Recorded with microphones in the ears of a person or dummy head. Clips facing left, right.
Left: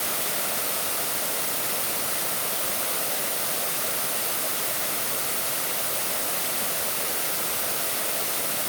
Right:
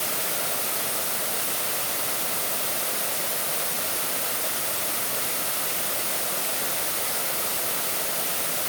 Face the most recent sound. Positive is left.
No sound to turn to.